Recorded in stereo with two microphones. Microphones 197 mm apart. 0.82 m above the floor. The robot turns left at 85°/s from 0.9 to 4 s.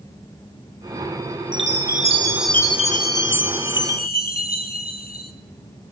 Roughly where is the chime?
Right.